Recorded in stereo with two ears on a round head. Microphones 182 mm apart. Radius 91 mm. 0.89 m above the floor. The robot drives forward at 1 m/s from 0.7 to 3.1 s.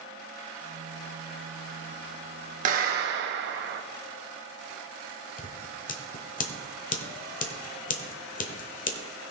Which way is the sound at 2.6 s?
40° right (ahead or behind).